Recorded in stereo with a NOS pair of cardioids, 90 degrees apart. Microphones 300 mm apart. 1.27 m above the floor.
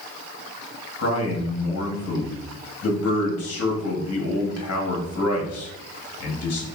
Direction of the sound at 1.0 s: 55° left.